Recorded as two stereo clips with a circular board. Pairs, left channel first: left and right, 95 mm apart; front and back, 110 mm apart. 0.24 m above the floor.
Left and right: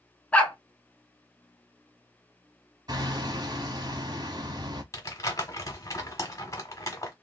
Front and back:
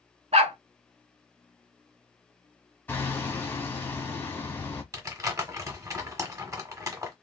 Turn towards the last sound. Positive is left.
turn(degrees=130)